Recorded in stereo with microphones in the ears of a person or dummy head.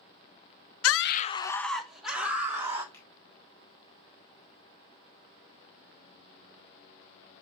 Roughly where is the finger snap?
Centre.